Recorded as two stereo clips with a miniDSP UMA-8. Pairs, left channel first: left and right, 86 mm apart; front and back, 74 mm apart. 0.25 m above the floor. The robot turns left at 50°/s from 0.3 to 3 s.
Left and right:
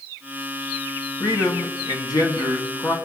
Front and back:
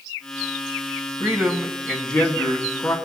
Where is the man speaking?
125° left, 2 m; by 3.0 s 35° left, 2 m.